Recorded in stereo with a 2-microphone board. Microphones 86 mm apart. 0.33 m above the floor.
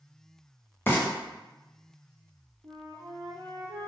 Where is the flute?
85° right, 1.2 m.